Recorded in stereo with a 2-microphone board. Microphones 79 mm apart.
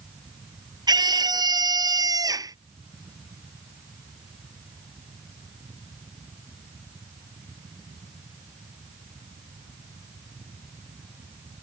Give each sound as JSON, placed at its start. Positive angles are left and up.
{"t": 0.9, "sound": "a scream", "side_deg": -60}